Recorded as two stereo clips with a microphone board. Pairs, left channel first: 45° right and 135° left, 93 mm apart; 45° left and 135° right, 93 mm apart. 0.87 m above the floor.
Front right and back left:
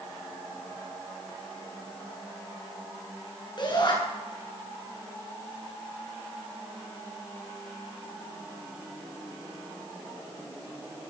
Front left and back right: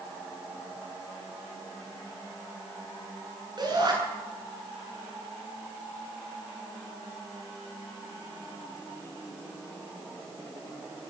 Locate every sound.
3.6 s a shout: 85° right, 9 m